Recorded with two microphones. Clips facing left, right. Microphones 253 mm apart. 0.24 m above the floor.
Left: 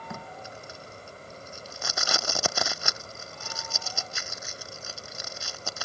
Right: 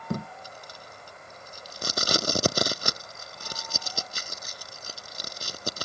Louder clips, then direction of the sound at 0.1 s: Right 10 dB; 40° right (ahead or behind).